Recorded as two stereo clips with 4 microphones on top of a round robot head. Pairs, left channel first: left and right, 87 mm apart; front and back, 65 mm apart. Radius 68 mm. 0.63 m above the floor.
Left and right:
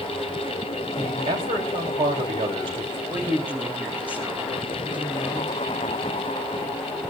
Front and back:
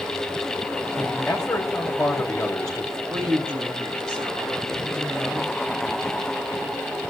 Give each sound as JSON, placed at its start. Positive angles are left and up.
{"t": 1.0, "sound": "a man speaking", "azimuth_deg": -80, "distance_m": 4.0}
{"t": 3.1, "sound": "a woman speaking", "azimuth_deg": -160, "distance_m": 4.0}